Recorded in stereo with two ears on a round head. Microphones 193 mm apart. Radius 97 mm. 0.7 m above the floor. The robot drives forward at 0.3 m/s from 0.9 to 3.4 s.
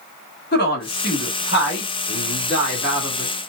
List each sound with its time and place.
0.5 s a woman speaking: 45° left (ahead or behind), 1.3 m; by 3.3 s 55° left (ahead or behind), 1.1 m